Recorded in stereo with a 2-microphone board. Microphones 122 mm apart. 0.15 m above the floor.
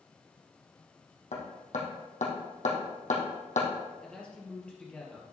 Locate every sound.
1.3 s hammering: 80° left, 2.5 m
4.0 s a man speaking: 10° left (ahead or behind), 3 m